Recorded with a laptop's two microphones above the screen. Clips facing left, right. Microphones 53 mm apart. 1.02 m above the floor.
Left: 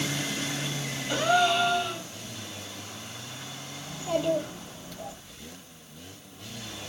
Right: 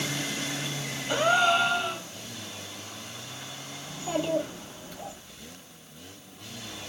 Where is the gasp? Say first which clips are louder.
Right 1 dB; 25° right (ahead or behind), 0.9 m.